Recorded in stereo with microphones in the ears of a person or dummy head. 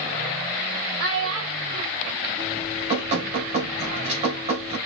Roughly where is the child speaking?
Right.